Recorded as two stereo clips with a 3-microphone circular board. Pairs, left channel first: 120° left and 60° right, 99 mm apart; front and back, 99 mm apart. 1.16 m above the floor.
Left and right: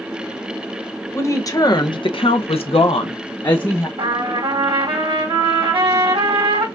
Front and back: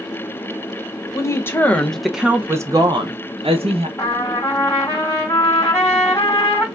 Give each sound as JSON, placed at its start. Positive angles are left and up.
{"t": 1.1, "sound": "a woman speaking", "azimuth_deg": 55, "distance_m": 1.1}
{"t": 4.0, "sound": "a trumpet", "azimuth_deg": -55, "distance_m": 2.5}